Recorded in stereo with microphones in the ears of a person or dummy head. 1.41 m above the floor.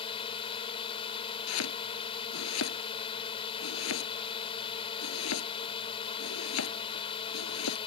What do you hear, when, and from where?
0.0 s a drone: 30° left (ahead or behind)
1.5 s chopping: 85° left